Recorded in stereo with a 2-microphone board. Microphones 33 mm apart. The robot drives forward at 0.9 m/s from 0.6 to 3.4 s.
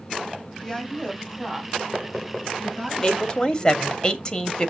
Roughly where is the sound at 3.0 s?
Left.